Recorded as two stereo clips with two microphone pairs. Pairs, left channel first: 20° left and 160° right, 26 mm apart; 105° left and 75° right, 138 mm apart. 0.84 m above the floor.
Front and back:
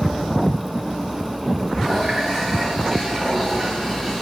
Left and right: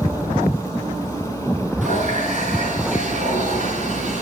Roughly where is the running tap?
Ahead right.